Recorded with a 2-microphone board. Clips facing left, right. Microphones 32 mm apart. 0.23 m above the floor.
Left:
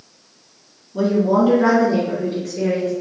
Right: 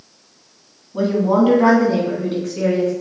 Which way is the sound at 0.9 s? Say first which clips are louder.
Even; 30° right (ahead or behind).